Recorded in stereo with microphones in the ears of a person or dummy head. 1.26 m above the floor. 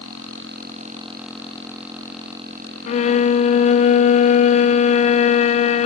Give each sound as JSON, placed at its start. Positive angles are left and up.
{"t": 2.9, "sound": "a violin", "side_deg": 40, "distance_m": 0.6}